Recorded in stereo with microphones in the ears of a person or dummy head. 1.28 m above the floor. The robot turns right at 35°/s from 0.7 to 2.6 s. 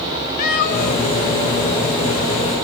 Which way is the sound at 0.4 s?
45° left (ahead or behind).